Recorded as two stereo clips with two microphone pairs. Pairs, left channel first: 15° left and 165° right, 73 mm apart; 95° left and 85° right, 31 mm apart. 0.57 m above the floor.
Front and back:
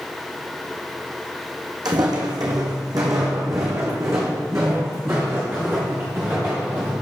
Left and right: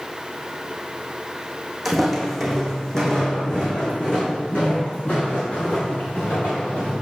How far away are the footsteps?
About 2 m.